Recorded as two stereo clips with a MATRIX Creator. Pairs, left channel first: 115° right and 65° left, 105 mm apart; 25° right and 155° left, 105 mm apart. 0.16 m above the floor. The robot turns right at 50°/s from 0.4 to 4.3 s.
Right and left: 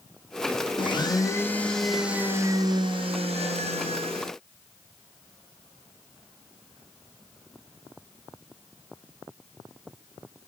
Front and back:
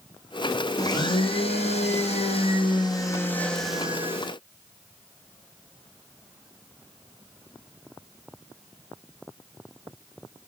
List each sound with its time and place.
0.8 s a blender: 75° right, 2.5 m; by 4.3 s 100° left, 2.5 m